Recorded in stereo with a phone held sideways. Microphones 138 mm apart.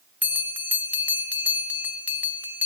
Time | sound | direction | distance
0.2 | a bell | 10° right (ahead or behind) | 0.6 m